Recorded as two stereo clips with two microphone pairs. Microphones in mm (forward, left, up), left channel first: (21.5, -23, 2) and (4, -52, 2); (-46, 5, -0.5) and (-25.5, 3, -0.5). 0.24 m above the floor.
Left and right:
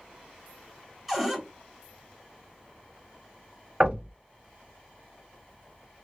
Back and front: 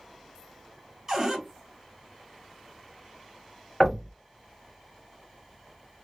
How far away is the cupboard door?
About 1.2 m.